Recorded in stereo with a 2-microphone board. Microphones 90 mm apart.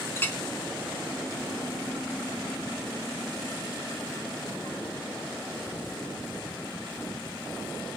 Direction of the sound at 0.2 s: 25° left (ahead or behind).